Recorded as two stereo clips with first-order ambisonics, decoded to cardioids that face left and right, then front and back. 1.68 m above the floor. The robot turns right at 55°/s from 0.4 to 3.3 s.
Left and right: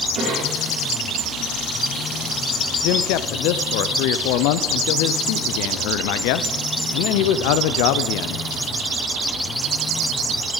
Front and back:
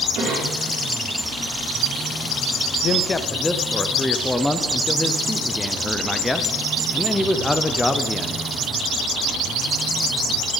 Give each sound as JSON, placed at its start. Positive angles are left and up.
{"t": 0.1, "sound": "a cough", "azimuth_deg": -135, "distance_m": 5.5}
{"t": 2.8, "sound": "a man speaking", "azimuth_deg": 60, "distance_m": 0.6}